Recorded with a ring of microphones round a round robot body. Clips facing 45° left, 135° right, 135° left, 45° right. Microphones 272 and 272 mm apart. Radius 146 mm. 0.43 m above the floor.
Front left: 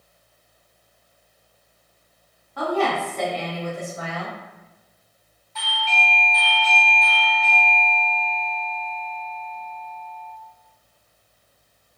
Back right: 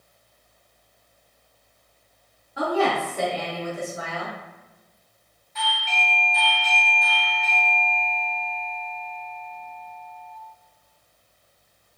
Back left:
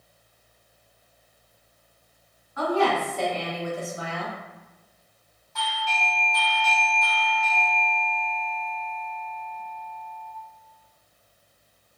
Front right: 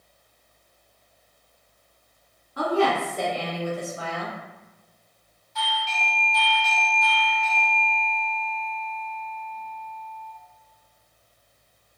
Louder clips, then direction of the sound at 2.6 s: Even, front right 1 dB; 55° right.